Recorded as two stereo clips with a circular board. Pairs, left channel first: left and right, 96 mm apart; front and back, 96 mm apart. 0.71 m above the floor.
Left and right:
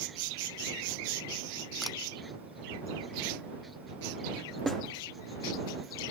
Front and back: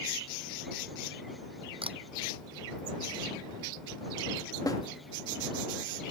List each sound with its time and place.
1.8 s a camera shutter: straight behind
4.7 s a snare drum: straight ahead